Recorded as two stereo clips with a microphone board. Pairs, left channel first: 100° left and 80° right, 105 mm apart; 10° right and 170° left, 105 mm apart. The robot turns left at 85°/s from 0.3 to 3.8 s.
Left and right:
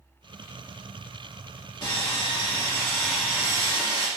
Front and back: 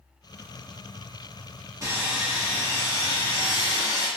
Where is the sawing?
130° left, 1.0 m; by 4.1 s 40° right, 1.0 m.